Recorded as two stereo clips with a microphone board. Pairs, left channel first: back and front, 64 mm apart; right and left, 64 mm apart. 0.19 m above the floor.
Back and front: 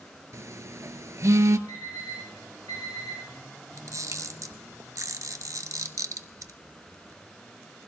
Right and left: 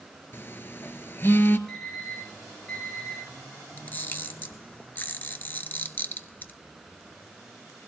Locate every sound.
0.3 s a phone buzzing: 35° right, 0.7 m
1.7 s an alarm clock: 175° right, 8 m
3.8 s a camera shutter: 30° right, 0.8 m